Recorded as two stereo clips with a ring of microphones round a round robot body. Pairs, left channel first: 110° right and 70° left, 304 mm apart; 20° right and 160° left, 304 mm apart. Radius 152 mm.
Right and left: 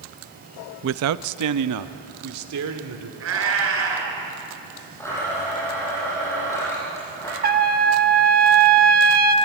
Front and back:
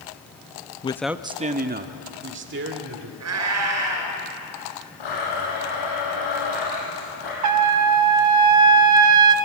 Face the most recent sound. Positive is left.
turn(degrees=130)